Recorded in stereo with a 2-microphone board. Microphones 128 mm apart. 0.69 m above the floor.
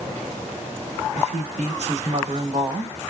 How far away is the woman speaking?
About 1.7 m.